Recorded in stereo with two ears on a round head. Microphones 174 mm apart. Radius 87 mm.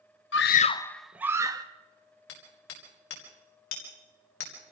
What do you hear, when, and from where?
0.3 s a scream: 65° left (ahead or behind), 0.7 m; by 1.6 s 20° right (ahead or behind), 1.6 m
2.3 s hammering: 70° left (ahead or behind), 5 m